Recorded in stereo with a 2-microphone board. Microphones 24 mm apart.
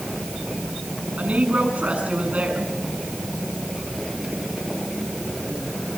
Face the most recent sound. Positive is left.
turn(degrees=-75)  # may be behind; listen again after turning